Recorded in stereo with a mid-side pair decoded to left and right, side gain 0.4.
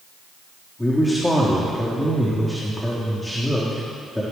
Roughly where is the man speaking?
Ahead.